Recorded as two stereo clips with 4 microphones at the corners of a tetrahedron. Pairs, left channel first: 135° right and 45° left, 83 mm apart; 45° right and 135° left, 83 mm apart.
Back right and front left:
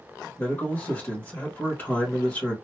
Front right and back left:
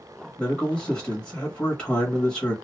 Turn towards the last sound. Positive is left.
turn(degrees=-110)